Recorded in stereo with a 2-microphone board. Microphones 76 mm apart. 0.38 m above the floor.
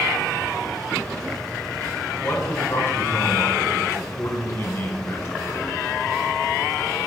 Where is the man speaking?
35° left (ahead or behind), 1.3 m.